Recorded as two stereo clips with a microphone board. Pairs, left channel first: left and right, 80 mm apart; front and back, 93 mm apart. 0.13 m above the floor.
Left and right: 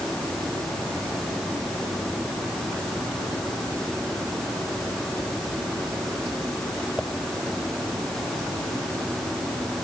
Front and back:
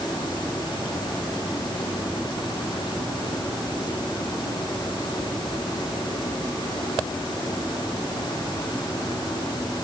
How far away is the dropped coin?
No dropped coin in this recording.